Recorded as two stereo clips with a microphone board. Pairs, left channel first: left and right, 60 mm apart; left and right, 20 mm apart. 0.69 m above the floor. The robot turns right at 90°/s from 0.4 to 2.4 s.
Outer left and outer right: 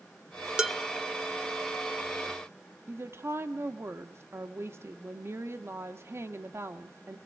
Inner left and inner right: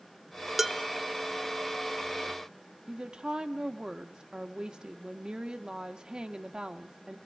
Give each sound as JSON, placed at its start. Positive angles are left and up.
{"t": 0.6, "sound": "dishes clattering", "side_deg": -10, "distance_m": 1.3}
{"t": 2.9, "sound": "a woman speaking", "side_deg": -45, "distance_m": 1.0}